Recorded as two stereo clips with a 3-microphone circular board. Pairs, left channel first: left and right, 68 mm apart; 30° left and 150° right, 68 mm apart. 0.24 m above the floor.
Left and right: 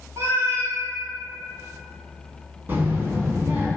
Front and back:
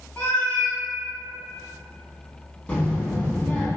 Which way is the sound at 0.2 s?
40° right.